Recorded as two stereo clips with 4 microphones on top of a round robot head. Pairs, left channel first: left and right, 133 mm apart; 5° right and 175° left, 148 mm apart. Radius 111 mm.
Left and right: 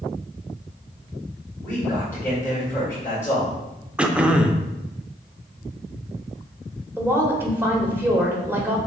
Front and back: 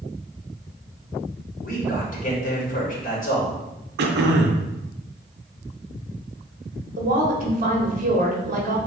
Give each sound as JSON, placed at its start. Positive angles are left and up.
{"t": 1.6, "sound": "a man speaking", "azimuth_deg": 15, "distance_m": 1.9}
{"t": 4.0, "sound": "throat clearing", "azimuth_deg": -175, "distance_m": 0.5}
{"t": 7.0, "sound": "a woman speaking", "azimuth_deg": -165, "distance_m": 1.4}